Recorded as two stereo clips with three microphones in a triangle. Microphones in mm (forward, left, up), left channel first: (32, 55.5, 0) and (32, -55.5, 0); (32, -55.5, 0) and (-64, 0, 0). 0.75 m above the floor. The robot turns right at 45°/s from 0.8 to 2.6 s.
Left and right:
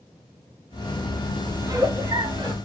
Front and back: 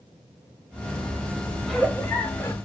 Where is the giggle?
120° right, 0.7 m; by 2.5 s 80° right, 0.7 m.